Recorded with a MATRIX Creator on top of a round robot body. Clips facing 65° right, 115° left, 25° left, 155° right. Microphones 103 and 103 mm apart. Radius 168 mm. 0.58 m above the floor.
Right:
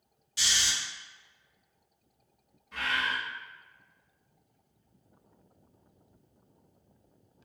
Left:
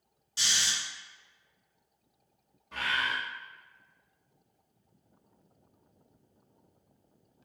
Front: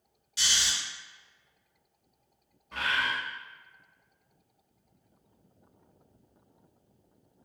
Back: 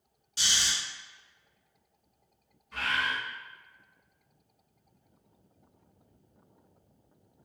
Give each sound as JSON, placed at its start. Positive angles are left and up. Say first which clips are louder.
{"t": 0.4, "sound": "snoring", "louder": "right 1 dB, even", "azimuth_deg": 160, "distance_m": 1.6}
{"t": 2.7, "sound": "a bird", "louder": "even, front 1 dB", "azimuth_deg": 65, "distance_m": 0.6}